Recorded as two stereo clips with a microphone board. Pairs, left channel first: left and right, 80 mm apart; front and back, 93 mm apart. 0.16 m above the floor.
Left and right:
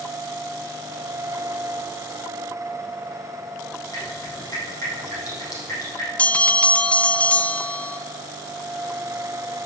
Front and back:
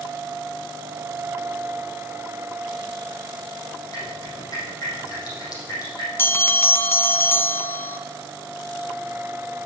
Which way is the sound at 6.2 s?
35° left.